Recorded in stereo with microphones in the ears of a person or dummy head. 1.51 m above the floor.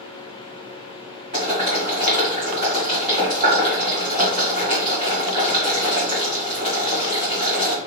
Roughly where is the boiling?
Right.